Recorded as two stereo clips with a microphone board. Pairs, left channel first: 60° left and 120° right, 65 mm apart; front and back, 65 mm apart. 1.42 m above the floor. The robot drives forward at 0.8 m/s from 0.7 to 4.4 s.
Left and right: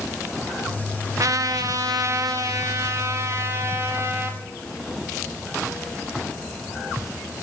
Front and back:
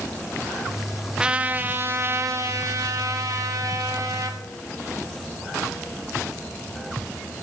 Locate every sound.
1.2 s a trumpet: 105° right, 0.9 m; by 4.4 s 165° right, 3 m